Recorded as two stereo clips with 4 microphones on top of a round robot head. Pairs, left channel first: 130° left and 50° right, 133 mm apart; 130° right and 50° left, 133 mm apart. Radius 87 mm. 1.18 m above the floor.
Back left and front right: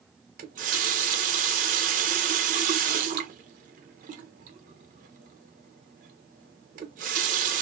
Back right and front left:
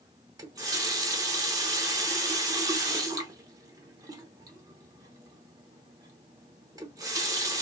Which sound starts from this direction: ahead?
A running tap, at 0.4 s.